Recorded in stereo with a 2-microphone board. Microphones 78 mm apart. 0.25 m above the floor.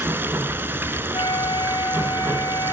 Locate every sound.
0.0 s running water: 25° right (ahead or behind), 1.2 m
1.1 s a flute: 65° left (ahead or behind), 1.1 m